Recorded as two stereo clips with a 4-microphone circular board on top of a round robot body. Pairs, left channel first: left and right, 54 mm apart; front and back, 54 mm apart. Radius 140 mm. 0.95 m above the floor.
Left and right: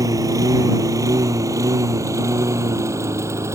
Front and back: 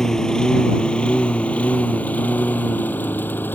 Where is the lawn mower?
80° right; by 3.6 s 55° right.